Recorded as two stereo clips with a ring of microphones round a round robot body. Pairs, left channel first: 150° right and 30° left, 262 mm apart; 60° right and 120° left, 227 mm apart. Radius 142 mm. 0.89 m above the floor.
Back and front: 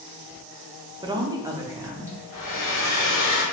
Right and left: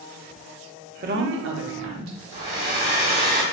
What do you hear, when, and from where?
1.0 s a woman speaking: 95° left, 0.5 m; by 2.2 s 110° left, 1.2 m
2.3 s a hair dryer: 145° left, 1.9 m